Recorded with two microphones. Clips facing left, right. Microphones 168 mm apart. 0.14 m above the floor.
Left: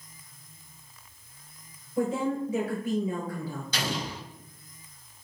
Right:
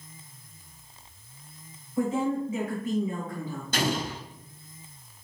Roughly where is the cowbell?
No cowbell in this recording.